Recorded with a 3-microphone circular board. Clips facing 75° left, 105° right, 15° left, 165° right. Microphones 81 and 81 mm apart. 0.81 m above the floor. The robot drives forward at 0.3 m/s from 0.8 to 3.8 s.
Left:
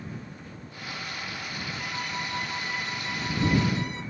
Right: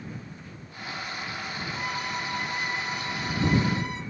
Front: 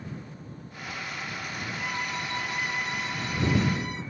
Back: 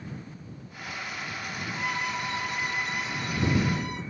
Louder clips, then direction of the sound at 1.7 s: Right 2 dB, back 3 dB; 105° right.